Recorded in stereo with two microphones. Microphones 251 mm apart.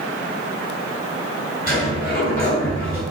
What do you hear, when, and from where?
1.7 s a sliding door: 35° left (ahead or behind), 3 m